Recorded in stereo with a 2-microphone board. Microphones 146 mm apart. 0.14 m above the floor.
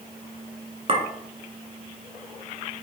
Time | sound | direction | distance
0.9 | a clink | 40° right (ahead or behind) | 0.8 m